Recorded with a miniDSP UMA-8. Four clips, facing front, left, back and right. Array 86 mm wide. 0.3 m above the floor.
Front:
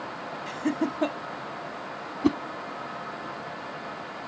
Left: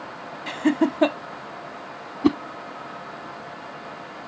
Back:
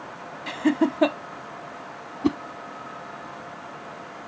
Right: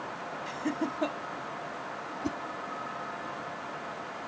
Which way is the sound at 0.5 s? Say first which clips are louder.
Left 12 dB, back 6 dB; 125° left.